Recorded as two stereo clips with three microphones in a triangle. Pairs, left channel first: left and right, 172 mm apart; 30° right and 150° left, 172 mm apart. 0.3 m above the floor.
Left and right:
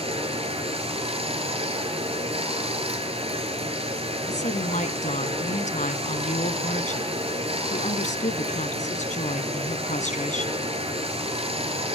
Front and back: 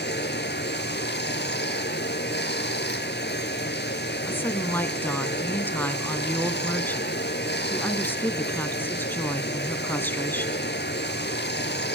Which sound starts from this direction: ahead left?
A woman speaking, at 4.2 s.